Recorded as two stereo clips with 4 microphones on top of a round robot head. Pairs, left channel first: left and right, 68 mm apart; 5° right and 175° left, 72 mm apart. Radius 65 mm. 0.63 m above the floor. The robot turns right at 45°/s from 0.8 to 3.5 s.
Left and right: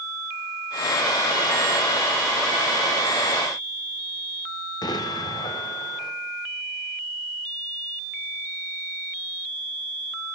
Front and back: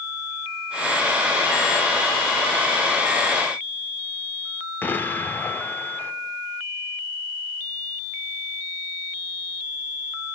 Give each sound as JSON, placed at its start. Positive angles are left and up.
{"t": 4.8, "sound": "an explosion", "azimuth_deg": 60, "distance_m": 0.9}